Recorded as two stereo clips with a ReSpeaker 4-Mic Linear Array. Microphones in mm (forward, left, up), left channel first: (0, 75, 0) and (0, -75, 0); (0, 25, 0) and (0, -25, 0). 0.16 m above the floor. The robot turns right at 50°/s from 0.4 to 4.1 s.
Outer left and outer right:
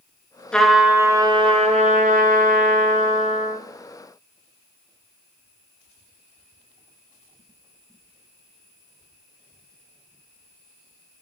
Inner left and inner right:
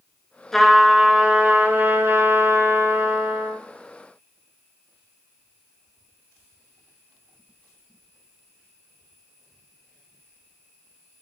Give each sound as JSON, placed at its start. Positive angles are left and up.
{"t": 0.5, "sound": "a trumpet", "azimuth_deg": 175, "distance_m": 0.7}